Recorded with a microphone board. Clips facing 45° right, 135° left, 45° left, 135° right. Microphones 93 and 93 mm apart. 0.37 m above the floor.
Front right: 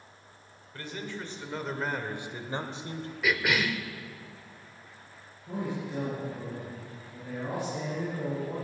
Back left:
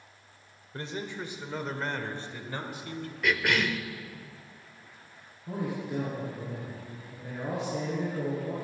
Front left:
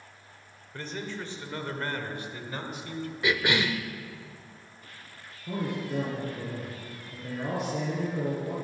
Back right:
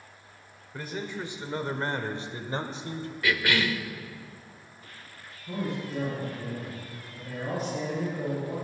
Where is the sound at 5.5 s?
65° left, 6.5 m.